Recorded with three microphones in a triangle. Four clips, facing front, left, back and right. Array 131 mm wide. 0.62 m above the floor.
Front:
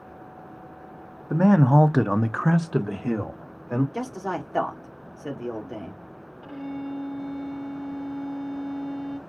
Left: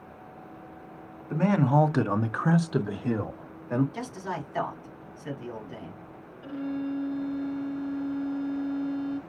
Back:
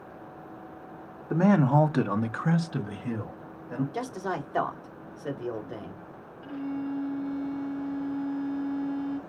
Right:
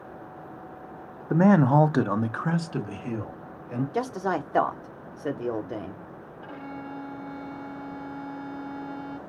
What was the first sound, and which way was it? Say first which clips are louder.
A man speaking: right 4 dB, front 3 dB; 85° right.